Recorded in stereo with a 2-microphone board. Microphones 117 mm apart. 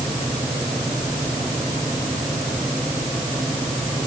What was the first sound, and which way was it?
Only background noise.